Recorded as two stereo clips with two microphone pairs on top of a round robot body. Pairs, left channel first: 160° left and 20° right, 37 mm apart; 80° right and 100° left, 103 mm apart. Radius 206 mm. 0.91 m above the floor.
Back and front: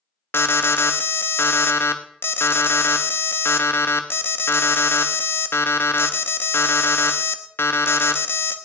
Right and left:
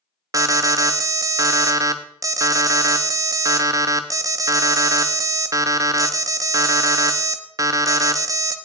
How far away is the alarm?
About 1.2 m.